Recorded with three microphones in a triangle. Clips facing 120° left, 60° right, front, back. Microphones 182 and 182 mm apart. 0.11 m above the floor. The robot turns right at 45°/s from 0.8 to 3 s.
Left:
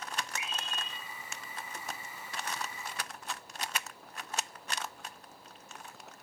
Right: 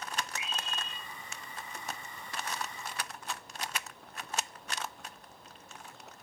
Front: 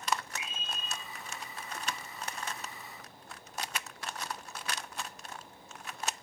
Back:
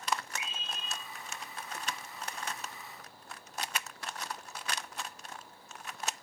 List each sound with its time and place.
0.4 s a scream: 120° right, 8 m; by 1.0 s 110° right, 8 m